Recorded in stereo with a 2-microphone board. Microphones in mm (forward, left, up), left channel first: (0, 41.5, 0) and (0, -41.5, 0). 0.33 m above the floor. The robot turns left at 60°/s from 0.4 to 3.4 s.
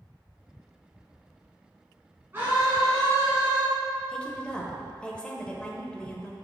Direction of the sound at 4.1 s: 10° left (ahead or behind).